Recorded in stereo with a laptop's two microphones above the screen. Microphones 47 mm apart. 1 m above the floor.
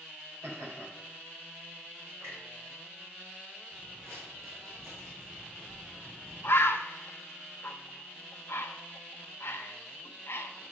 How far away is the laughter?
About 3 m.